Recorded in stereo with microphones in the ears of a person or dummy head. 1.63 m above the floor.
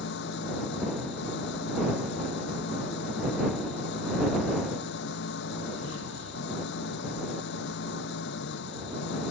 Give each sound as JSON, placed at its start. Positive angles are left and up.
{"t": 0.0, "sound": "an engine running", "side_deg": 70}